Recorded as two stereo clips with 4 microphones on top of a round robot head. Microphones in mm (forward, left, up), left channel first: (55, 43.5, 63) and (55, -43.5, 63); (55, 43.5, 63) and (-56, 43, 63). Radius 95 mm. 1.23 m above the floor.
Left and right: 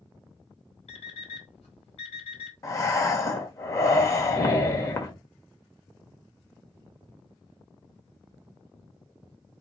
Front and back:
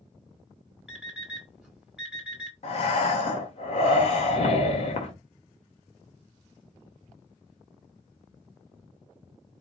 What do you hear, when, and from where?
0.9 s an alarm clock: 95° left, 2 m
2.6 s breathing: 35° left, 1.3 m